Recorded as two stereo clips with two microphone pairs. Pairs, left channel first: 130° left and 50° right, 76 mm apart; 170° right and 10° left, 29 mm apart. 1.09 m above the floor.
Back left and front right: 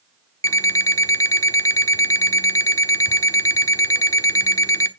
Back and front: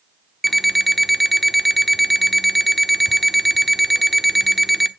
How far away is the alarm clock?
About 0.9 m.